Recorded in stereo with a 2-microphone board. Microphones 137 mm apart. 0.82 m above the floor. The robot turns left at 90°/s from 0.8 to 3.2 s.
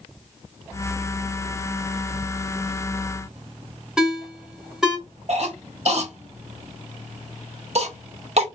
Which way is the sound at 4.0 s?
5° right (ahead or behind).